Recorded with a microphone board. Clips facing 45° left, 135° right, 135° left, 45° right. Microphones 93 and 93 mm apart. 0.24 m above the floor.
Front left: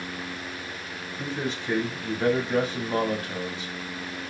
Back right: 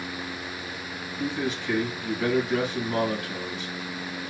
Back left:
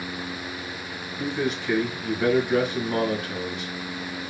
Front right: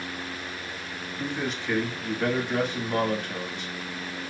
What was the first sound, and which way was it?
A man speaking, 55° left.